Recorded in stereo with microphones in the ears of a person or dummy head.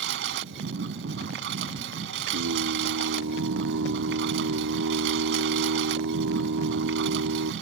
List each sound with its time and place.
0.0 s a lawn mower: 60° right (ahead or behind)
2.3 s singing: 85° right